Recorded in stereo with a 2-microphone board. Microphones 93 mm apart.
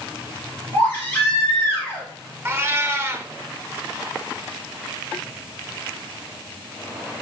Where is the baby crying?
20° left (ahead or behind), 2.5 m.